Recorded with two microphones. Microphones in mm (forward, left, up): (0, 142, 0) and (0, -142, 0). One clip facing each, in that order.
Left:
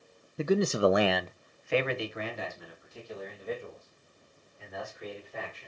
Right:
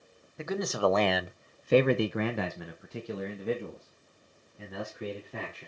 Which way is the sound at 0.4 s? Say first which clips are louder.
Left 4 dB; 40° left (ahead or behind).